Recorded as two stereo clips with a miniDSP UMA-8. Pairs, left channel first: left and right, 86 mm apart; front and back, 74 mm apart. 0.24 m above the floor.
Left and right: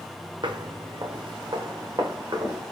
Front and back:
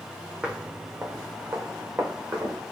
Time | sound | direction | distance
0.4 | footsteps | 105° right | 0.7 m